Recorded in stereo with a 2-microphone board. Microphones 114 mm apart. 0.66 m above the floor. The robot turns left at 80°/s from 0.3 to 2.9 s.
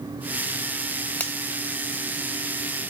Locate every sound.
1.2 s a finger snap: 15° left (ahead or behind), 2.5 m; by 1.4 s centre (ahead or behind), 2.5 m